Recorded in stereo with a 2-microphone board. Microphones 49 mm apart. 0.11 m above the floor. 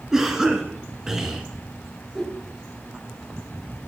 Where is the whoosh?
Centre (ahead or behind), 1.3 m.